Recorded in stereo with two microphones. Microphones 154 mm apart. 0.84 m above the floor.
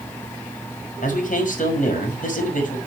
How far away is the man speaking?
About 6 m.